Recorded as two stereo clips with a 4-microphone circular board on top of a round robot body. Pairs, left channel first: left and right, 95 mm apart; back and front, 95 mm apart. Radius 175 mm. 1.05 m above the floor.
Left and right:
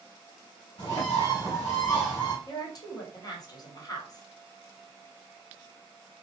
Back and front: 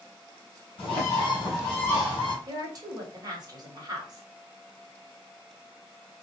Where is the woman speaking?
45° left, 1.1 m.